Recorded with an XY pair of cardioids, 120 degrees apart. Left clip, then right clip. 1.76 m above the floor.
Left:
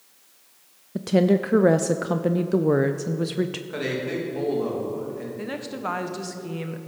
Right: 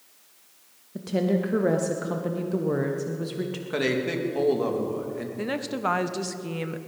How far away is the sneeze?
No sneeze in this recording.